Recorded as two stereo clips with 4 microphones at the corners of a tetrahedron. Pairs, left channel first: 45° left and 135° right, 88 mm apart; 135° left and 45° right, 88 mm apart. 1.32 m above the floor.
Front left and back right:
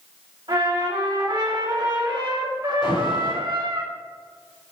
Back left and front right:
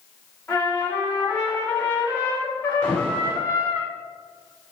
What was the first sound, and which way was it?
A trumpet, 155° right.